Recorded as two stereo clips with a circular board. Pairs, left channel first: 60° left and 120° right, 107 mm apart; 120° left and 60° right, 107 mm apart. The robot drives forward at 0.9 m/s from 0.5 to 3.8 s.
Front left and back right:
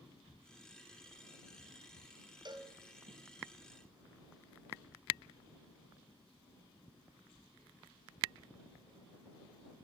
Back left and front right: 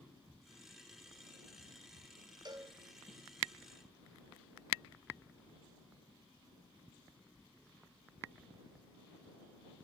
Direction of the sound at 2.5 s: 90° right.